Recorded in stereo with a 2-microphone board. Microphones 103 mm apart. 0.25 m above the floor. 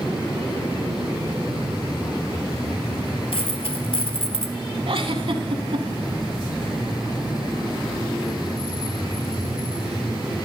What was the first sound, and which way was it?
A dropped coin, 65° left (ahead or behind).